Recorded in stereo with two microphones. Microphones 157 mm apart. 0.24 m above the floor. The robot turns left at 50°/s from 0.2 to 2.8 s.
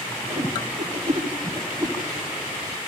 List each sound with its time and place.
0.3 s a whoosh: 45° right (ahead or behind), 1.5 m; by 2.0 s 15° right (ahead or behind), 1.5 m